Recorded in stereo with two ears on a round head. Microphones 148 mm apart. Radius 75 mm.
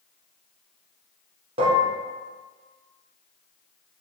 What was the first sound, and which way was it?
Dishes clattering, 35° right (ahead or behind).